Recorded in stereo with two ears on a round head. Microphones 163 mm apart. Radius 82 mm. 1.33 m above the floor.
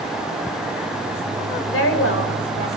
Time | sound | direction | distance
1.7 | a woman speaking | 80° left | 4.5 m